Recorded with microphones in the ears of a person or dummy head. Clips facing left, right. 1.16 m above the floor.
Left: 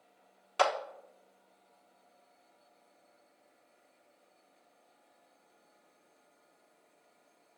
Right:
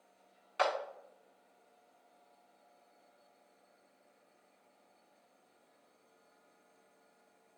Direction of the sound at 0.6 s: 50° left (ahead or behind).